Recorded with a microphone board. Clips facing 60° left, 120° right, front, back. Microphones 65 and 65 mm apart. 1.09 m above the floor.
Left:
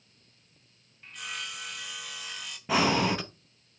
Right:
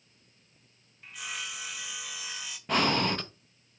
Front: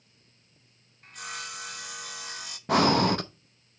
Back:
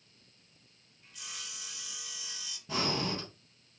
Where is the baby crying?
No baby crying in this recording.